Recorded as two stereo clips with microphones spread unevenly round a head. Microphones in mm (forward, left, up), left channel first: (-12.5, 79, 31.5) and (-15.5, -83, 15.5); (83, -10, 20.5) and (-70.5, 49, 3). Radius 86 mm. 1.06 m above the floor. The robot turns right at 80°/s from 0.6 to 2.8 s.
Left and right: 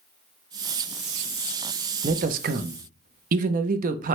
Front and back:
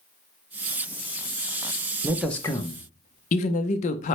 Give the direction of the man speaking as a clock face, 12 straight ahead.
4 o'clock.